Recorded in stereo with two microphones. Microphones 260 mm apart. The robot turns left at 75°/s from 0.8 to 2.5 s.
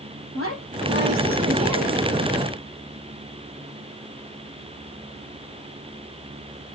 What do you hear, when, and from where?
0.3 s a woman speaking: 60° left, 4.5 m; by 2.1 s 35° right, 4.5 m